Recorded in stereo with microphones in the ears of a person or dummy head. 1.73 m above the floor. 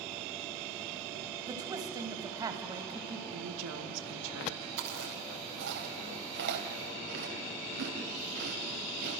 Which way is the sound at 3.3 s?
70° right (ahead or behind).